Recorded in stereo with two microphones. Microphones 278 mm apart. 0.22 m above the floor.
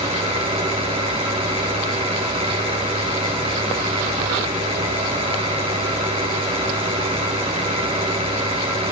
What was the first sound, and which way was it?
An engine running, 20° right (ahead or behind).